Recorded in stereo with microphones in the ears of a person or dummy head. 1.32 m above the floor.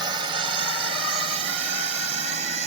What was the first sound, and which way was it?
A drone, 25° right (ahead or behind).